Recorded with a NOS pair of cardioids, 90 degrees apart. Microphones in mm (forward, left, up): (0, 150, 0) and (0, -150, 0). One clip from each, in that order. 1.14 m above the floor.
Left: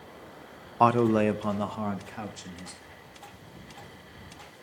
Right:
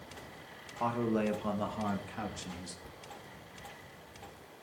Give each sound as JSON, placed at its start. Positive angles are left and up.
{"t": 0.8, "sound": "a man speaking", "azimuth_deg": 65, "distance_m": 0.6}
{"t": 2.8, "sound": "a thud", "azimuth_deg": -60, "distance_m": 1.7}